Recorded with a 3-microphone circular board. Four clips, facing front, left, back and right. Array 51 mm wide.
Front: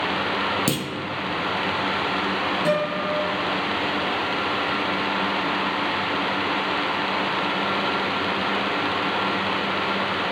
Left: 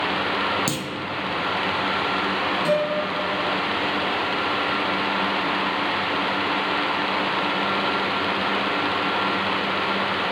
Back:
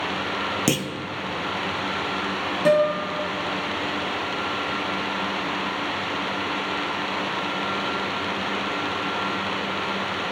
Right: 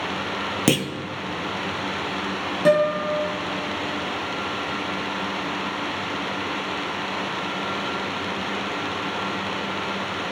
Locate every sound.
0.7 s a clunk: 105° right, 0.5 m
2.6 s a guitar: 120° right, 3 m